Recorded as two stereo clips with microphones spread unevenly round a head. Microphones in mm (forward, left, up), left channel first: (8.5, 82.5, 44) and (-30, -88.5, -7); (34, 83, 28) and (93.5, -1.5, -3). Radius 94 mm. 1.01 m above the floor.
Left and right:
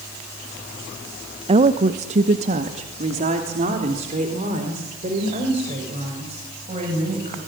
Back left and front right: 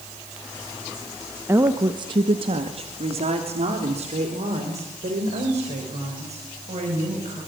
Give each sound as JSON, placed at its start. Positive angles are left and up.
{"t": 1.5, "sound": "a woman speaking", "azimuth_deg": -100, "distance_m": 1.0}